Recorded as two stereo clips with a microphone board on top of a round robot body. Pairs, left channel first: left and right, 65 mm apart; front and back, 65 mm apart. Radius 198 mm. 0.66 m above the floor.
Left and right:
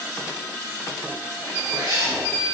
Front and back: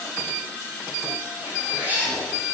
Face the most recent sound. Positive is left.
turn(degrees=-115)